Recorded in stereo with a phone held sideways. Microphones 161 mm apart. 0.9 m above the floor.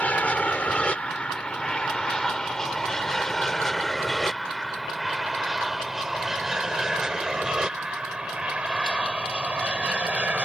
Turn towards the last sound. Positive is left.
turn(degrees=-10)  # may be behind; listen again after turning